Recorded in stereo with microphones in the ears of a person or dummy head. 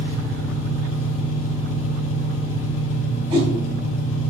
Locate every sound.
0.0 s an engine running: 75° left (ahead or behind), 2.5 m
3.3 s a whoosh: 35° right (ahead or behind), 2.5 m